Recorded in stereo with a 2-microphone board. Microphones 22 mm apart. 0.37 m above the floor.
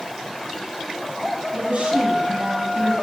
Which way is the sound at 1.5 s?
60° right (ahead or behind).